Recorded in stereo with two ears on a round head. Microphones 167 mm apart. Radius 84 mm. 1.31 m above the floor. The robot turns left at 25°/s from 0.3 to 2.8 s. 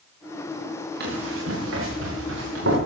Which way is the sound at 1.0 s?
55° right (ahead or behind).